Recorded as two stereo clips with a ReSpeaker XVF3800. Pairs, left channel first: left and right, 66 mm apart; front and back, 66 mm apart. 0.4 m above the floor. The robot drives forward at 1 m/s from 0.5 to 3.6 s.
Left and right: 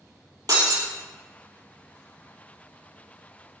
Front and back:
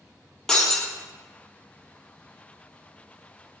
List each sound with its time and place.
0.5 s breaking glass: 80° right, 4.5 m; by 0.9 s 85° right, 4.5 m